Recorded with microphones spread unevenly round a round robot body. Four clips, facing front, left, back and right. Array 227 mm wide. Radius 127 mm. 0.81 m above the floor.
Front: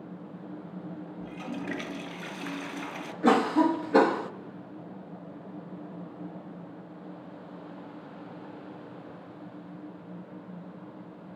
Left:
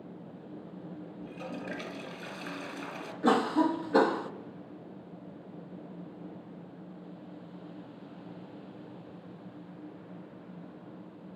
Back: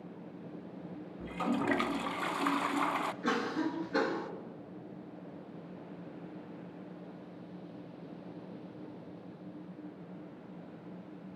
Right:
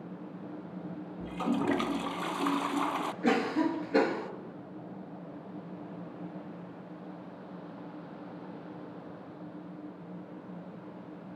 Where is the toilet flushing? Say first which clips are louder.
Right 11 dB, back 5 dB; 105° right, 1.1 m.